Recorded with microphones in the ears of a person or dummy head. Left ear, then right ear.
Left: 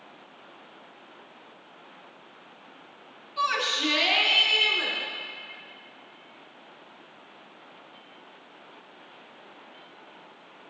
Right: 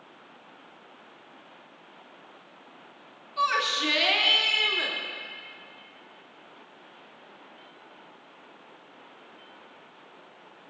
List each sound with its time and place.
3.4 s a shout: centre (ahead or behind), 2 m; by 5.0 s 20° right (ahead or behind), 2.5 m